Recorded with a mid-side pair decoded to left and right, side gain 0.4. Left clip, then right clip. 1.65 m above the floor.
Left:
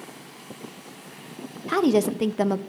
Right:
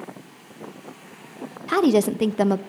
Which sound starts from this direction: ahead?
A woman speaking, at 1.7 s.